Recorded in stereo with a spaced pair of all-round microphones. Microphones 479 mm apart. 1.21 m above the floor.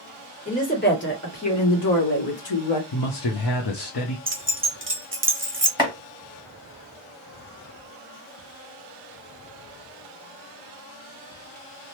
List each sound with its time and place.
0.5 s a woman speaking: 15° left (ahead or behind), 1.5 m; by 2.8 s 70° left (ahead or behind), 1.0 m
2.9 s a man speaking: 50° left (ahead or behind), 0.6 m
4.3 s keys jangling: 25° right (ahead or behind), 0.6 m
5.8 s chopping: 10° right (ahead or behind), 1.2 m